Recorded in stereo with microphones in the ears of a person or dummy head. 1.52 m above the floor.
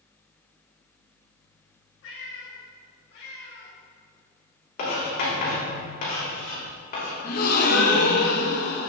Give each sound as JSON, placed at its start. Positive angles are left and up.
{"t": 2.0, "sound": "a cat meowing", "side_deg": 65, "distance_m": 2.5}
{"t": 4.8, "sound": "writing", "side_deg": 50, "distance_m": 3.0}
{"t": 7.2, "sound": "a gasp", "side_deg": 55, "distance_m": 1.2}